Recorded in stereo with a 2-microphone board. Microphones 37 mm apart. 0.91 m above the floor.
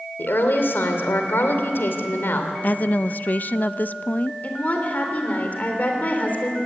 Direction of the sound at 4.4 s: 45° left (ahead or behind).